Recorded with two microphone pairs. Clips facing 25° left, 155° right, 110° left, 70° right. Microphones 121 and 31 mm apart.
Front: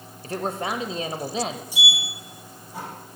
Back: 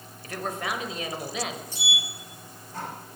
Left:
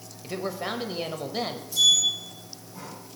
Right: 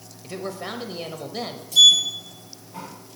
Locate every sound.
0.2 s a man speaking: 20° left, 0.9 m
1.7 s a sliding door: 50° right, 3.5 m